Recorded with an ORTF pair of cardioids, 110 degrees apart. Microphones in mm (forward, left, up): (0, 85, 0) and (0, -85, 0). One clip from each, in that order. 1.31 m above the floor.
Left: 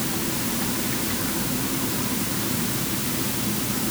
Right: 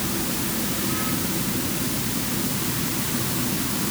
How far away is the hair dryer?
I don't hear a hair dryer.